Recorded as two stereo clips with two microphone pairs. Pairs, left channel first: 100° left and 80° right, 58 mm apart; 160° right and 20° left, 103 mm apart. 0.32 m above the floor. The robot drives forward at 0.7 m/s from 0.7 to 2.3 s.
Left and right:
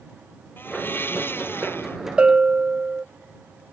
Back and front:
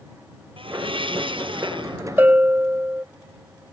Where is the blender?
45° left; by 2.0 s 50° left.